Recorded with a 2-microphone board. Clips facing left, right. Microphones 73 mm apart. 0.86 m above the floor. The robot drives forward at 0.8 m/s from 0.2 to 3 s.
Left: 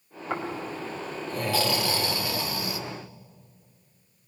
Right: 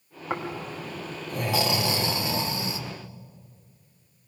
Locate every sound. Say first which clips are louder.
0.3 s snoring: even; 15° right (ahead or behind), 3.5 m; by 2.8 s 30° right (ahead or behind), 1.8 m